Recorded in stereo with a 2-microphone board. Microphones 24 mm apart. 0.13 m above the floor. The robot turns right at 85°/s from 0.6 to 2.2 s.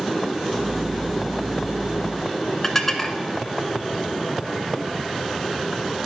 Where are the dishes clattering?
15° left (ahead or behind), 0.9 m.